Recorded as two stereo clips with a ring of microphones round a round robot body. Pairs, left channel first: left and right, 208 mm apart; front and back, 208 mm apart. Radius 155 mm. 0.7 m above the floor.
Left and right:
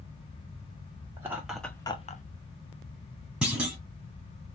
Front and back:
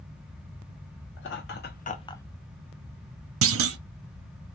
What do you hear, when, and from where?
1.2 s laughter: 15° right, 1.4 m; by 2.2 s 75° left, 0.8 m
3.4 s a clunk: 175° right, 0.7 m